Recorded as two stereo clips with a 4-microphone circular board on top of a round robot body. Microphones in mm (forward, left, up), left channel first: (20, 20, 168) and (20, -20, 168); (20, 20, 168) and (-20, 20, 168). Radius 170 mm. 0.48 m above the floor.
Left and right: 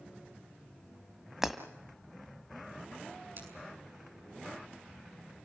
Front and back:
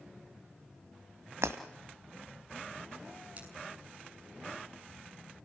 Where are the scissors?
120° right, 8 m.